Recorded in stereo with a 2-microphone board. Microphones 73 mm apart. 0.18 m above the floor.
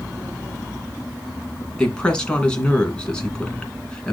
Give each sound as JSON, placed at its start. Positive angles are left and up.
{"t": 1.8, "sound": "a woman speaking", "side_deg": 10, "distance_m": 2.5}